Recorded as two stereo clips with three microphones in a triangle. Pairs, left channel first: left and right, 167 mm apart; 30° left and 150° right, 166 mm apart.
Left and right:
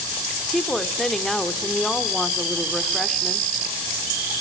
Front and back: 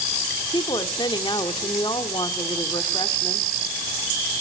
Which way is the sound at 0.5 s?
5° left.